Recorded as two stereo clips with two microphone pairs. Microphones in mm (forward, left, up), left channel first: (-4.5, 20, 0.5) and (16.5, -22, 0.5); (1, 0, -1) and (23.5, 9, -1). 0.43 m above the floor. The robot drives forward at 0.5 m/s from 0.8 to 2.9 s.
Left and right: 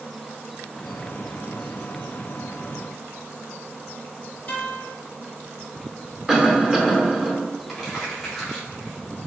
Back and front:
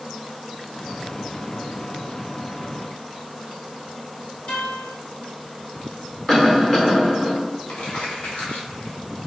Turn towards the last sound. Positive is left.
turn(degrees=-155)